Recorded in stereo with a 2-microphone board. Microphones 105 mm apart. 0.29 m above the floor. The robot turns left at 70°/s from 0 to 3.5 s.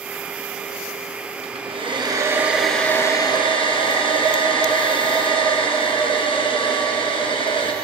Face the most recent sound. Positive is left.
turn(degrees=125)